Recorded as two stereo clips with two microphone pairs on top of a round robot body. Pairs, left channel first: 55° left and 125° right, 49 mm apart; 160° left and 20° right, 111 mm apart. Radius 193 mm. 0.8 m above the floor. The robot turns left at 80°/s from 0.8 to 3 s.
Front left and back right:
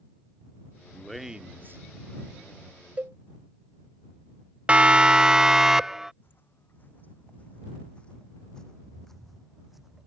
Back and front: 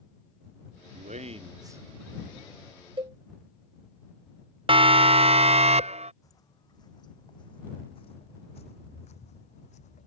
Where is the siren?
60° right; by 6.1 s 45° right.